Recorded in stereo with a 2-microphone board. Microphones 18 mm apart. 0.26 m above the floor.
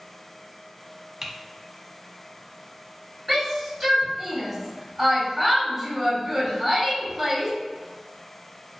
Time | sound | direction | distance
1.2 | typing on a keyboard | 25° right (ahead or behind) | 0.5 m
3.3 | a shout | 10° right (ahead or behind) | 1.7 m